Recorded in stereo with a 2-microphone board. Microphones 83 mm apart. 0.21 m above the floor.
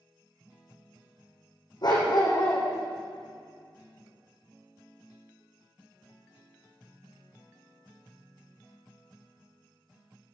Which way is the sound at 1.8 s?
60° left (ahead or behind).